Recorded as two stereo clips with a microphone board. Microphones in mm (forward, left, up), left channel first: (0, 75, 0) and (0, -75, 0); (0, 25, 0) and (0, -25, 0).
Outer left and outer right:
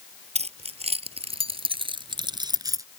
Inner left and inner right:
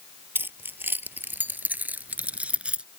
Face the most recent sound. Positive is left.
turn(degrees=-20)  # may be behind; listen again after turning